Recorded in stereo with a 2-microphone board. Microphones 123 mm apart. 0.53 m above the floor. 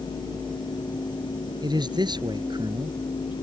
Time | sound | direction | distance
1.6 | a man speaking | 35° right (ahead or behind) | ?